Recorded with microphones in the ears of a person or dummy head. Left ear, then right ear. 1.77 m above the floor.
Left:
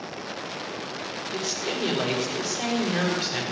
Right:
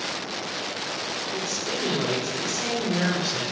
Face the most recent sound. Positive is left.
turn(degrees=60)  # may be behind; listen again after turning